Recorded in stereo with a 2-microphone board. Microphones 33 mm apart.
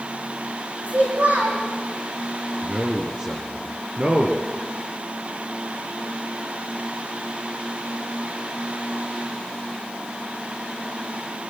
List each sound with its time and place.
0.9 s a child speaking: 50° right (ahead or behind), 8 m
2.6 s a man speaking: 35° right (ahead or behind), 3.5 m